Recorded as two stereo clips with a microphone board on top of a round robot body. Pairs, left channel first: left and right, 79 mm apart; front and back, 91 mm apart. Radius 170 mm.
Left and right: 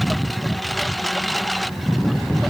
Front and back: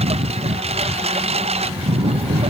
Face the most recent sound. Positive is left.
turn(degrees=180)